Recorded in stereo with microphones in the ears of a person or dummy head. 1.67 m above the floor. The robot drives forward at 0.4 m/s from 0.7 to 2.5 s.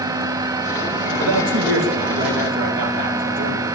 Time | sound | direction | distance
1.2 | a man speaking | 65° right (ahead or behind) | 2.5 m